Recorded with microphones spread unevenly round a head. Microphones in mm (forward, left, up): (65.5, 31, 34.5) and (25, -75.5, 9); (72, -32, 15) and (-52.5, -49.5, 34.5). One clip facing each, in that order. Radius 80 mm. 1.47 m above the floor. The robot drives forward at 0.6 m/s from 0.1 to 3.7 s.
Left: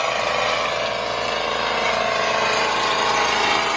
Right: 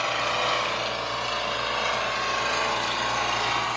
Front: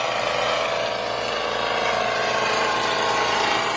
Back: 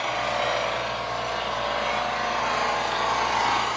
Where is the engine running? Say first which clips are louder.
Left 5 dB, front 3 dB; 35° left, 5 m; by 3.8 s 55° left, 3.5 m.